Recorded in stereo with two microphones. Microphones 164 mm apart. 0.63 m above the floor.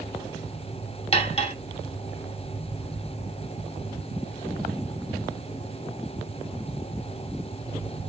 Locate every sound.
1.1 s cutlery clinking: 40° left (ahead or behind), 1.0 m